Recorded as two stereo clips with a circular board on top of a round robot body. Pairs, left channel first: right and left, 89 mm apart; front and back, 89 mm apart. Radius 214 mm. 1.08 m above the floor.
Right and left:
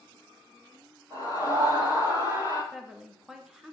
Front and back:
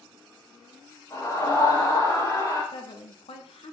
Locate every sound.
1.1 s a scream: 40° left, 6.5 m; by 2.6 s 35° left, 8.5 m
2.7 s a woman speaking: 5° left, 1.1 m